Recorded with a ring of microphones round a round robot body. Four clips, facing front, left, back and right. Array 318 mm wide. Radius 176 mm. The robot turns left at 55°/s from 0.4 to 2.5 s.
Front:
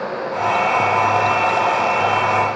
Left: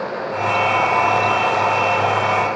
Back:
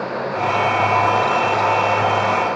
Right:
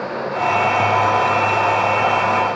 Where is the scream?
No scream in this recording.